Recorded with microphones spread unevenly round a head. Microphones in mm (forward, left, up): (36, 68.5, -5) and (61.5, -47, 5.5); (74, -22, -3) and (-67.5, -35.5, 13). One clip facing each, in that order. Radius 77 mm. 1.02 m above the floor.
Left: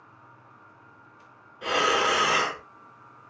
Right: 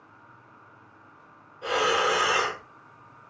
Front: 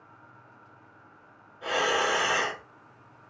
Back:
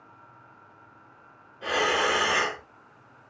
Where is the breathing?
110° left, 0.8 m.